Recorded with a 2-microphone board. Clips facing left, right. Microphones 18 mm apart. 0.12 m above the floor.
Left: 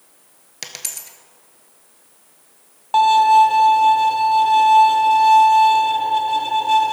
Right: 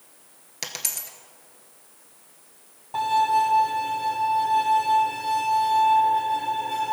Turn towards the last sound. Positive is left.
turn(degrees=75)  # may be behind; listen again after turning